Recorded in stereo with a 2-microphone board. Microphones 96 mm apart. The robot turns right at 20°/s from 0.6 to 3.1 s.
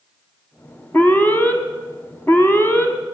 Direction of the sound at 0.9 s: 20° left (ahead or behind).